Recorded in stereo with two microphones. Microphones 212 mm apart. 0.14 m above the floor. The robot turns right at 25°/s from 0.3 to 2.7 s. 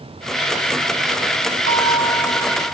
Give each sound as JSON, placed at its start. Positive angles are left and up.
{"t": 1.7, "sound": "a bell", "side_deg": 35, "distance_m": 1.7}